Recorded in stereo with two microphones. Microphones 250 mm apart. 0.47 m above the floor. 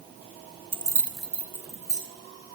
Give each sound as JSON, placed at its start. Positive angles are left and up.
{"t": 0.7, "sound": "keys jangling", "side_deg": -20, "distance_m": 0.6}